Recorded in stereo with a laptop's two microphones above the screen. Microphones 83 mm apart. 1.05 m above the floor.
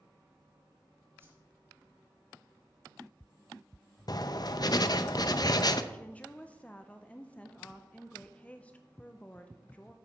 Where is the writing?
50° left (ahead or behind), 0.6 m.